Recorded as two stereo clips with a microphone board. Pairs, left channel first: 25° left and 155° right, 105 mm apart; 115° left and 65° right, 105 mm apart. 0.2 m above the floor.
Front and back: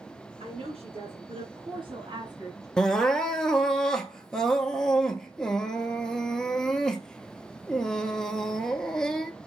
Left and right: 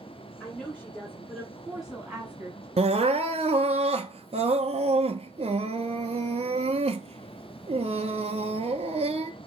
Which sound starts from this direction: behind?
A woman speaking, at 0.4 s.